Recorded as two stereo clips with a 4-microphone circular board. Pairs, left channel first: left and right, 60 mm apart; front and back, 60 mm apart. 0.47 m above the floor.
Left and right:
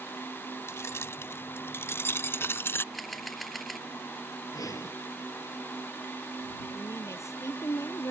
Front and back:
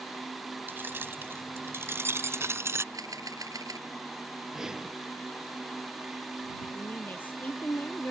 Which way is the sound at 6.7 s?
60° left.